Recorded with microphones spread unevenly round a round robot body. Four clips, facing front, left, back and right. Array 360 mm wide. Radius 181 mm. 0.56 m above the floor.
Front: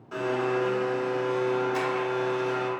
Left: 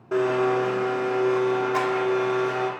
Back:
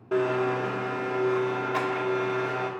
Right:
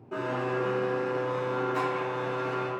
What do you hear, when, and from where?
0.1 s a blender: 130° left, 0.6 m